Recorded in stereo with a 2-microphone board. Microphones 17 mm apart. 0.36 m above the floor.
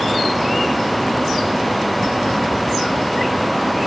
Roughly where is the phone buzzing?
No phone buzzing in this recording.